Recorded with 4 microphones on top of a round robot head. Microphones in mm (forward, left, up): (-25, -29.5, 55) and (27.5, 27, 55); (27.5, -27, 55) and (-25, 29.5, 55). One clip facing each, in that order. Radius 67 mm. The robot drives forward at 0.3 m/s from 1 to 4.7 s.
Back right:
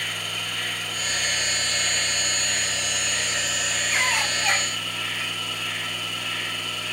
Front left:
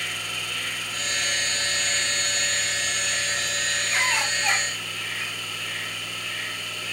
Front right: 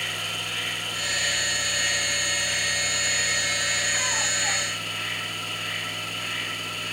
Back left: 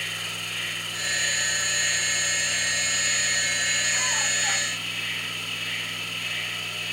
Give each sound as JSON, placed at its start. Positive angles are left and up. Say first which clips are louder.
{"t": 0.0, "sound": "an insect", "louder": "back right 1 dB, front right 2 dB", "azimuth_deg": -85, "distance_m": 2.0}